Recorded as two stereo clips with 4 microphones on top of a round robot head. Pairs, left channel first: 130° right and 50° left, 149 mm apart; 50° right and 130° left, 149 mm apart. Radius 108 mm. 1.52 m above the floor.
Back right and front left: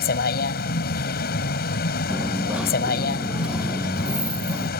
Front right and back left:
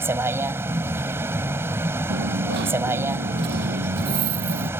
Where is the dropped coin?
135° left.